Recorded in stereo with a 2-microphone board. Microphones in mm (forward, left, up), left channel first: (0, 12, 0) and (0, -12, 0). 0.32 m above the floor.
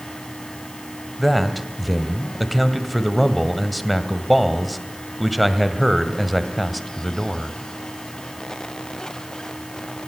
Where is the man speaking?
Centre (ahead or behind), 2 m.